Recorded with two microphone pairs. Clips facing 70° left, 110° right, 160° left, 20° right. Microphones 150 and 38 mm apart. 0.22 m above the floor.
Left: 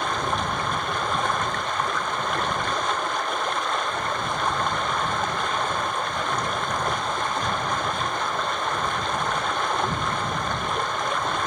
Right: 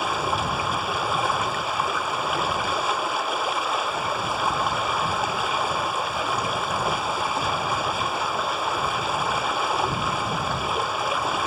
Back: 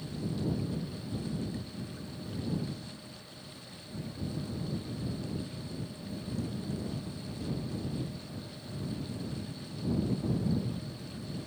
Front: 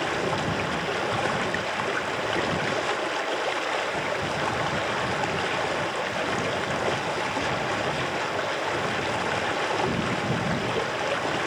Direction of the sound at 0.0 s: 25° right.